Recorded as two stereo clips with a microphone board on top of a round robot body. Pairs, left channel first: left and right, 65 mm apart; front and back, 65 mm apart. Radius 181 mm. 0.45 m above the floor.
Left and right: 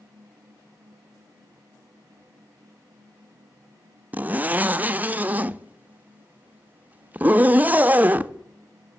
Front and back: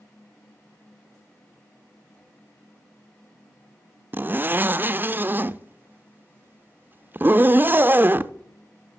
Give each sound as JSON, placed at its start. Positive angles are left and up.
{"t": 4.1, "sound": "a zipper", "azimuth_deg": -135, "distance_m": 0.6}